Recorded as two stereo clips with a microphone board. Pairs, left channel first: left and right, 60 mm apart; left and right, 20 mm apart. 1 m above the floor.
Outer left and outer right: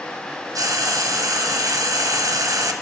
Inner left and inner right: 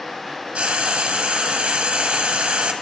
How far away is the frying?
About 1.3 m.